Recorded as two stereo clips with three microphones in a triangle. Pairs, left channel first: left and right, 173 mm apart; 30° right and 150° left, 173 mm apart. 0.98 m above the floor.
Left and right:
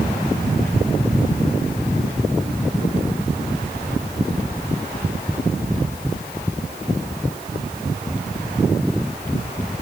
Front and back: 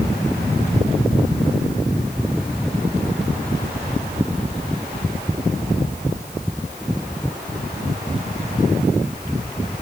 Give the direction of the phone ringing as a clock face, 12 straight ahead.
I don't hear a phone ringing.